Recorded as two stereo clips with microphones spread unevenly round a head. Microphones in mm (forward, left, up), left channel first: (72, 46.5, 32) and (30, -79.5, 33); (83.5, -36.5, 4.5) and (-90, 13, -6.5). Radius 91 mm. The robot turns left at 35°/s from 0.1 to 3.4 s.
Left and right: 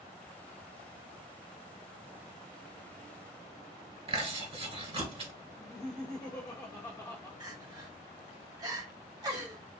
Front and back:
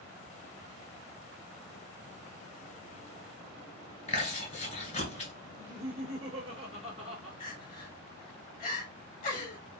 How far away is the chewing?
About 2.5 m.